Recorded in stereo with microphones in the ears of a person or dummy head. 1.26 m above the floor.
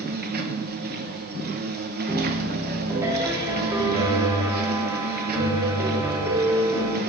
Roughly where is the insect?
Right.